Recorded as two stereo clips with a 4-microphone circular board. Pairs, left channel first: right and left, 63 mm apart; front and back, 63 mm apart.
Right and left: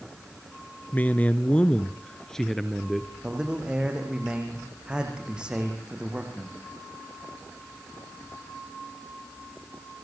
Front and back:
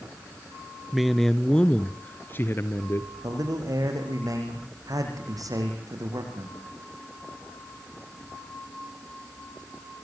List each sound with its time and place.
0.9 s a man speaking: 100° right, 1.6 m; by 3.1 s straight ahead, 2 m
3.2 s a man speaking: 165° left, 7 m